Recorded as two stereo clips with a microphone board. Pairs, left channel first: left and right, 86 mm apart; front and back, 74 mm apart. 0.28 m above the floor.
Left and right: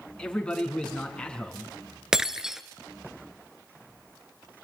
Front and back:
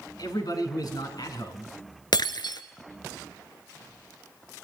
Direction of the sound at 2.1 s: 10° right.